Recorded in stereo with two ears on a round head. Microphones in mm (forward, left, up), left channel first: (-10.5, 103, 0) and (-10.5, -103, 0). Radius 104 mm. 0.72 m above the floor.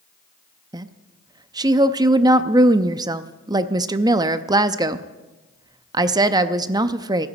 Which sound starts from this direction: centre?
A woman speaking, at 0.7 s.